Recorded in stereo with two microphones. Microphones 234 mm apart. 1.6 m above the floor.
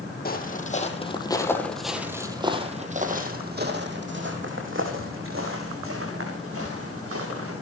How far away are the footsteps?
About 3 m.